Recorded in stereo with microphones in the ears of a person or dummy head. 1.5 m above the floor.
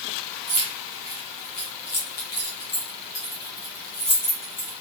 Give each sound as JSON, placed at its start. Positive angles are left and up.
{"t": 0.5, "sound": "keys jangling", "side_deg": 25, "distance_m": 0.7}